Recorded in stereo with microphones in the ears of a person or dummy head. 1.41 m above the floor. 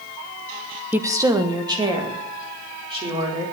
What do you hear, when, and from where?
0.9 s a woman speaking: centre (ahead or behind), 0.7 m; by 3.4 s 20° right (ahead or behind), 4 m